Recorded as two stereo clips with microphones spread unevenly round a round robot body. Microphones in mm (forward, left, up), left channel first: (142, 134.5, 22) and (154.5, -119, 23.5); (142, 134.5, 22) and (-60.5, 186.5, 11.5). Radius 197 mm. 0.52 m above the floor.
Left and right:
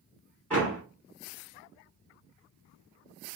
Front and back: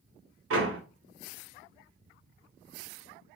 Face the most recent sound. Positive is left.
turn(degrees=180)